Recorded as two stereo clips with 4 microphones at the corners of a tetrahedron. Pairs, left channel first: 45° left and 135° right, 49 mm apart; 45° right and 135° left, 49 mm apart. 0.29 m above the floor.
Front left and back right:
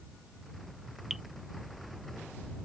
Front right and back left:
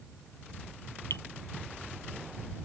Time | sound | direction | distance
1.1 | dripping | 50° right | ?